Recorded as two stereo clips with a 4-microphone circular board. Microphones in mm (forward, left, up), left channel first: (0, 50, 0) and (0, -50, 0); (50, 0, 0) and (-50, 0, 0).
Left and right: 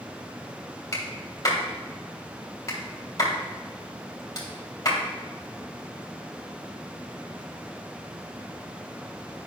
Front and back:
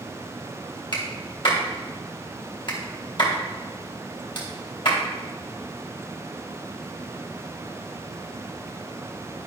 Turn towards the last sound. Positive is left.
turn(degrees=35)